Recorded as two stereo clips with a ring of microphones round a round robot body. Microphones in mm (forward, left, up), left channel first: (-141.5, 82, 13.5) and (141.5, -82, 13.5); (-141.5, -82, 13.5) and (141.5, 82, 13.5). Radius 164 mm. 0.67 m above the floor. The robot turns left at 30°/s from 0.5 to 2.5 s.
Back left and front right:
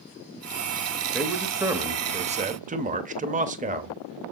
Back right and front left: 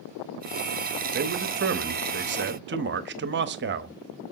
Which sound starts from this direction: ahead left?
A man speaking, at 1.1 s.